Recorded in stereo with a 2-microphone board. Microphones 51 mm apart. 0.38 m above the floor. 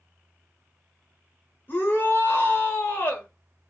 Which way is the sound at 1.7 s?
40° left (ahead or behind).